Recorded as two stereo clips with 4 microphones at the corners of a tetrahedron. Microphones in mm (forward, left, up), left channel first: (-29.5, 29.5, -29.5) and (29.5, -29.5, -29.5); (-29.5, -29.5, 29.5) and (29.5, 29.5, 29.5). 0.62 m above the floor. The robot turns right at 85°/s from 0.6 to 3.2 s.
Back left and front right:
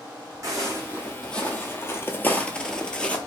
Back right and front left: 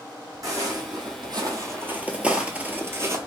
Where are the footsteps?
Straight ahead, 1.6 m; by 3.2 s 75° left, 0.7 m.